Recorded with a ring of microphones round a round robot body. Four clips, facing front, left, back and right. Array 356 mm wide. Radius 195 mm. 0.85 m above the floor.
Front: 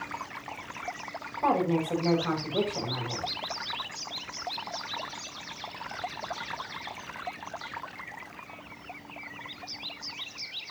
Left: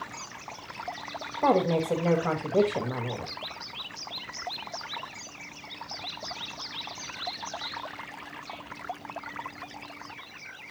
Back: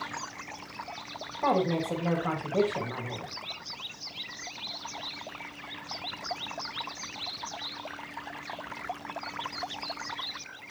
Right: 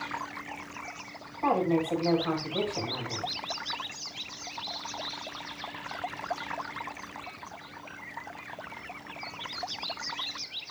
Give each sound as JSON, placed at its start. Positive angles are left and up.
{"t": 1.4, "sound": "a woman speaking", "azimuth_deg": 90, "distance_m": 6.0}